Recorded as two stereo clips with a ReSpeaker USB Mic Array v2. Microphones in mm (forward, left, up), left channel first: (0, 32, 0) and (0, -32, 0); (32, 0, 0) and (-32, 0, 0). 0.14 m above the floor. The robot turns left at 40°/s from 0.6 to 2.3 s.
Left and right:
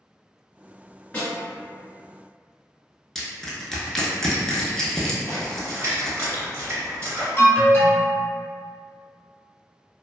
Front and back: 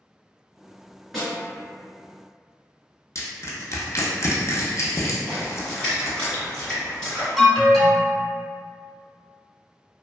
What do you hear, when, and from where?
1.1 s a snare drum: 95° left, 1.8 m; by 1.4 s 85° left, 1.8 m
3.1 s crushing: 10° left, 0.6 m
5.3 s a splash: 75° right, 1.8 m
7.4 s an alarm: 75° left, 0.9 m